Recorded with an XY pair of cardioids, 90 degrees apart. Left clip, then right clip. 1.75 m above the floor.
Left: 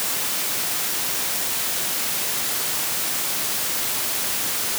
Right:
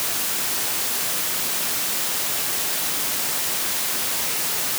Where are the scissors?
I don't hear scissors.